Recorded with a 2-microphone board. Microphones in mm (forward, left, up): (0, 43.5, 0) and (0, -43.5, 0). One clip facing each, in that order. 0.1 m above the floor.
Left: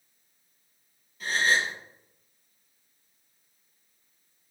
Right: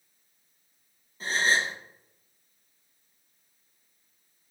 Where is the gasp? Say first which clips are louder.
Even; 30° right (ahead or behind), 1.1 m.